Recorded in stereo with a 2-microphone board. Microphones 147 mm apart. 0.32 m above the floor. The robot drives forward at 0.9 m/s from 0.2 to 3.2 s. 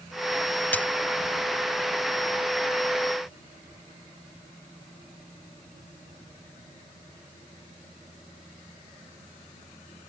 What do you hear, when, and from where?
0.7 s a dropped coin: 10° left (ahead or behind)